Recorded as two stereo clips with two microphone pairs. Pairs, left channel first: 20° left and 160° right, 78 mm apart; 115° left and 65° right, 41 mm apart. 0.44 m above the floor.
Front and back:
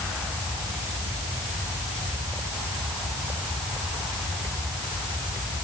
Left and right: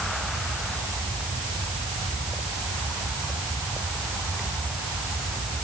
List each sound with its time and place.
Only background noise.